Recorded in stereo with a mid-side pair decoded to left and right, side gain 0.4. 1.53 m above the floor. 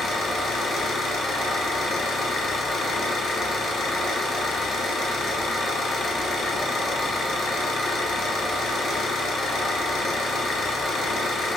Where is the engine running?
55° left, 1.0 m.